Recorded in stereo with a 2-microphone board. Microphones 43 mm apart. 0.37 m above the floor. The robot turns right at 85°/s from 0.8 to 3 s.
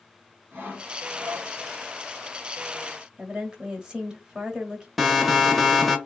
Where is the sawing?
110° right, 2 m; by 1.5 s 50° right, 2 m.